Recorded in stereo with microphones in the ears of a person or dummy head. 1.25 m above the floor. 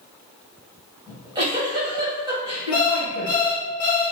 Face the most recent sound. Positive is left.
turn(degrees=50)  # may be behind; listen again after turning